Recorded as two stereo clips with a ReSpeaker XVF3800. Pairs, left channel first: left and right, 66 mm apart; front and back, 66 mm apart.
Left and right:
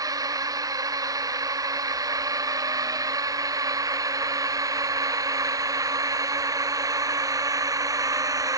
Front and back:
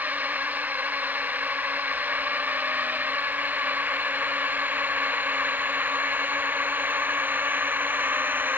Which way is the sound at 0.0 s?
115° right.